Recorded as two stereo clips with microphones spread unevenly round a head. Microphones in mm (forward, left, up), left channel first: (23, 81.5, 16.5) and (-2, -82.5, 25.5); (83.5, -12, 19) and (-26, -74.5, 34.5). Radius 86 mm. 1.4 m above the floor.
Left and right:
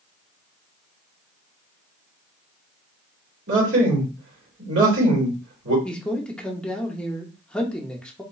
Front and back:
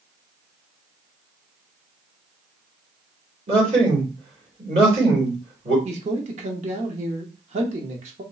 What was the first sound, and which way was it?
A man speaking, 115° right.